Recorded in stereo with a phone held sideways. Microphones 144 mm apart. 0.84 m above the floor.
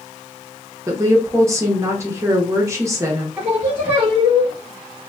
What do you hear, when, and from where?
0.9 s a woman speaking: 20° right (ahead or behind), 0.7 m
3.4 s singing: 15° right (ahead or behind), 1.1 m